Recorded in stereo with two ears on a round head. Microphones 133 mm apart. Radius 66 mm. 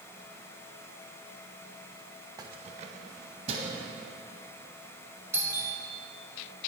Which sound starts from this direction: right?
Keys jangling, at 2.4 s.